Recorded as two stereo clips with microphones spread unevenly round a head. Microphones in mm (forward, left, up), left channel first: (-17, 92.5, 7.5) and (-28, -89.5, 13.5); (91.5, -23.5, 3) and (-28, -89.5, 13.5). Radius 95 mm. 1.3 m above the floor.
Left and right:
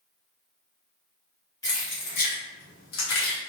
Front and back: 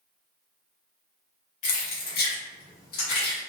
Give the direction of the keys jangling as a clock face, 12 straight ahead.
12 o'clock.